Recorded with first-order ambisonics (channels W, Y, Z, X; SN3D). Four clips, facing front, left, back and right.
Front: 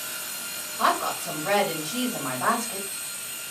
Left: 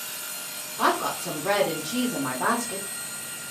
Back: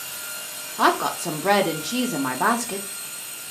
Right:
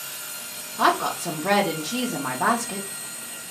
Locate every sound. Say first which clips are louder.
0.8 s a woman speaking: right 3 dB, back 4 dB; 165° right, 0.7 m